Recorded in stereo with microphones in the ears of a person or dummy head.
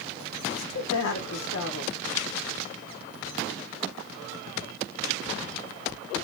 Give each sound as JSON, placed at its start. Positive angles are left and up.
{"t": 0.5, "sound": "a woman speaking", "side_deg": 75, "distance_m": 1.4}